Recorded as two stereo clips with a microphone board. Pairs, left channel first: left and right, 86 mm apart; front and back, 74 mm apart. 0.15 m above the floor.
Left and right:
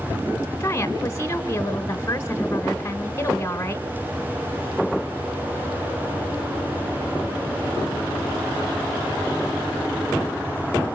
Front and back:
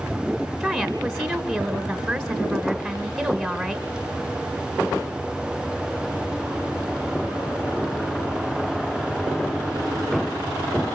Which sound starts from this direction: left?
A woman speaking, at 0.6 s.